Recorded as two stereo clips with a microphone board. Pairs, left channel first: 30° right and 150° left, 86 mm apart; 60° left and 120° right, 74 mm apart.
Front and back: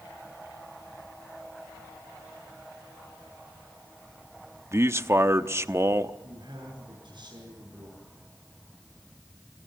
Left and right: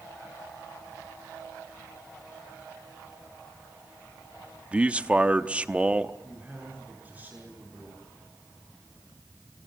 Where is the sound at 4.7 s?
Straight behind, 0.9 m.